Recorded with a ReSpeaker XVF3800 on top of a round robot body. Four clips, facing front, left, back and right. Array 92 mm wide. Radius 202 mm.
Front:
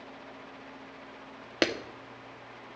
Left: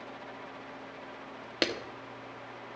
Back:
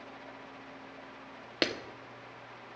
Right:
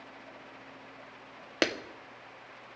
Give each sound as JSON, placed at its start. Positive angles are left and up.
{"t": 1.6, "sound": "a clap", "azimuth_deg": -50, "distance_m": 1.2}